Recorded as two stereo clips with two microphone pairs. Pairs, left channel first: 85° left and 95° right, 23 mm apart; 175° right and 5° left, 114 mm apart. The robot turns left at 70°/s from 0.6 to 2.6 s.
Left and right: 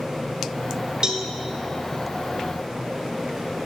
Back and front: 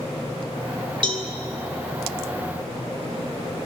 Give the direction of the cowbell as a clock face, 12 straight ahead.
1 o'clock.